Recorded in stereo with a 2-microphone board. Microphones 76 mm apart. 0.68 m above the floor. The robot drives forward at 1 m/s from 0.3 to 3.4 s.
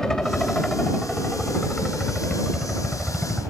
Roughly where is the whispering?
No whispering in this recording.